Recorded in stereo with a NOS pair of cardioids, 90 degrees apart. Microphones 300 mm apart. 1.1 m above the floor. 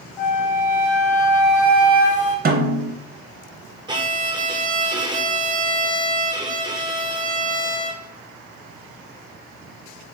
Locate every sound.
0.2 s a flute: 25° left, 1.3 m
2.5 s a snare drum: 30° right, 0.8 m
3.9 s a violin: 15° right, 0.6 m